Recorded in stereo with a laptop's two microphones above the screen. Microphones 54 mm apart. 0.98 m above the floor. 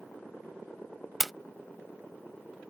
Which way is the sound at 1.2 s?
Centre (ahead or behind).